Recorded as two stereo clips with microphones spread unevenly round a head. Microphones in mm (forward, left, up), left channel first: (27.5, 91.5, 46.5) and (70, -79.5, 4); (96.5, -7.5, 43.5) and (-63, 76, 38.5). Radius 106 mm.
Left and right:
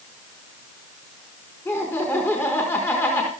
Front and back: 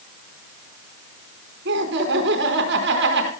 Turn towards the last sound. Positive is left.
turn(degrees=-175)